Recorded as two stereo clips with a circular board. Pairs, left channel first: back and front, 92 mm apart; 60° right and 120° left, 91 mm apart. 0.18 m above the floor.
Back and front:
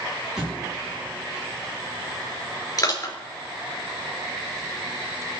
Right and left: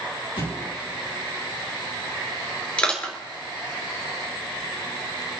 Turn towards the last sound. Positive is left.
turn(degrees=-135)